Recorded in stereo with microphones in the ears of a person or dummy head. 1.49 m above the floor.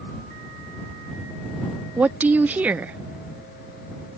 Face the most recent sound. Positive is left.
turn(degrees=-10)  # may be behind; listen again after turning